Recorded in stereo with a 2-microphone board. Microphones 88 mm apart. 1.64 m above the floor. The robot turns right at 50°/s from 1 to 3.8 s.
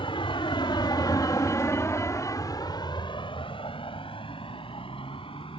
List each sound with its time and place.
0.0 s a vehicle: 85° left; by 5.6 s 90° left